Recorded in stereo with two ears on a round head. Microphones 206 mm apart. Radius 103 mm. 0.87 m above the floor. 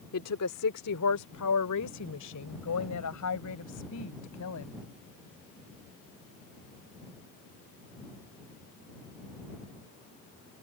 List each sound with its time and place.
0.1 s a woman speaking: 75° left (ahead or behind); by 4.8 s 70° left (ahead or behind)